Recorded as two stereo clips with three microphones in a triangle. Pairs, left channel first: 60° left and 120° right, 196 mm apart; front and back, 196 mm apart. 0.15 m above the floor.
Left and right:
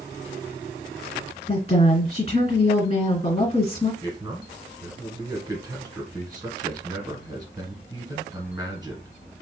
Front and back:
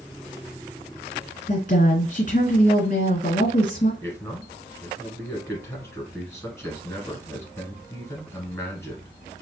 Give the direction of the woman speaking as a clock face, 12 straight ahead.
11 o'clock.